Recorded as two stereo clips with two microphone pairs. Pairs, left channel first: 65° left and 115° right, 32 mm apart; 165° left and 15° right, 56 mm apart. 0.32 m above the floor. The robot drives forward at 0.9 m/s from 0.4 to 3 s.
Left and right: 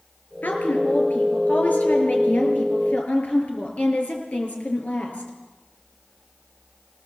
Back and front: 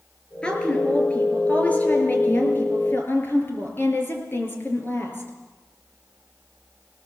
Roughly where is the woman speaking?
Left.